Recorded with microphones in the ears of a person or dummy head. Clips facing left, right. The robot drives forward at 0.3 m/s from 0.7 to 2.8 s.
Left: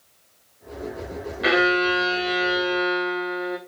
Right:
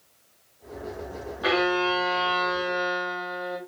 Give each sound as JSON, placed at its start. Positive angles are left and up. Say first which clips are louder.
{"t": 1.4, "sound": "a violin", "louder": "left 3 dB", "side_deg": 30, "distance_m": 1.1}